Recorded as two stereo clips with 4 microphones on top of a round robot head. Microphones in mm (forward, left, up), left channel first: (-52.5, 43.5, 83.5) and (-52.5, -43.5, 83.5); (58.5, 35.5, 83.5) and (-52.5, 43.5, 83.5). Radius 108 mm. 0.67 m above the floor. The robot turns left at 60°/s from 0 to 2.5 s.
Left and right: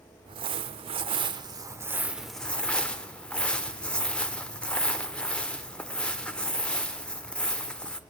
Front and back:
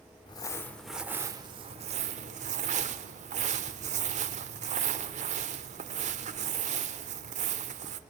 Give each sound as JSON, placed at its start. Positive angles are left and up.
{"t": 0.3, "sound": "crumpling", "azimuth_deg": -55, "distance_m": 1.1}